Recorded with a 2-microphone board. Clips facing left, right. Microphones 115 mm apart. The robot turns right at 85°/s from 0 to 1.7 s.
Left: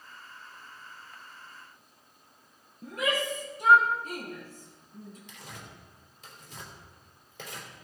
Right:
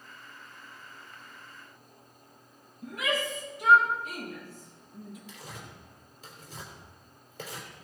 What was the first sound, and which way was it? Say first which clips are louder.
A shout: left 1 dB; 40° left (ahead or behind).